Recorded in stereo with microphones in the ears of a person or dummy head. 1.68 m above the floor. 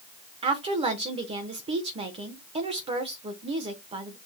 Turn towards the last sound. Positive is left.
turn(degrees=-20)  # may be behind; listen again after turning